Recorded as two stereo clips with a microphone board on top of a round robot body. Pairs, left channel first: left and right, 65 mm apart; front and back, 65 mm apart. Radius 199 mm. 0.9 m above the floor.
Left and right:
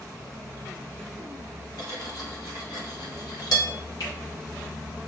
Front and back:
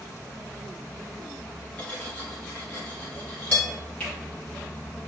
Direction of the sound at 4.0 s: 70° left.